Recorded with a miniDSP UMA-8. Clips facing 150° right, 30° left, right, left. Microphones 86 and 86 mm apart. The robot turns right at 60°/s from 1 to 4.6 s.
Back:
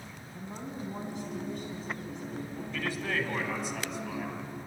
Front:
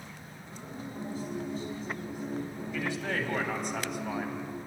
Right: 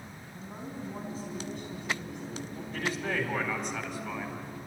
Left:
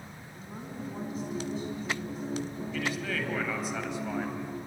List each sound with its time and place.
0.3 s a woman speaking: 155° right, 4.5 m; by 3.7 s 10° left, 4.5 m
2.7 s a man speaking: 50° right, 3.5 m; by 4.3 s 50° left, 3.5 m